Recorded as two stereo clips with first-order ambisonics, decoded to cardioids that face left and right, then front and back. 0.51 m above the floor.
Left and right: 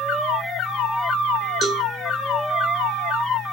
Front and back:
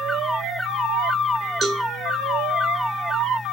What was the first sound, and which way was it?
A cowbell, 135° right.